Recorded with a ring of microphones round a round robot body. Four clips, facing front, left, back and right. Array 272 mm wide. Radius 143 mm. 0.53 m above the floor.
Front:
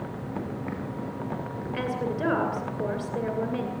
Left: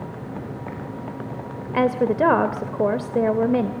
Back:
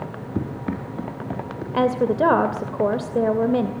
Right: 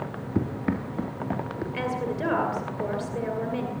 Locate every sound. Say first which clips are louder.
0.3 s running footsteps: right 8 dB, back 7 dB; 130° right, 6 m; by 1.6 s 125° right, 6.5 m
1.7 s a woman speaking: left 11 dB, back 11 dB; 130° left, 2.5 m